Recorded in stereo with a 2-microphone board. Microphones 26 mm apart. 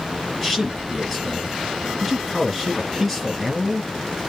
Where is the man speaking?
5° left (ahead or behind), 2 m.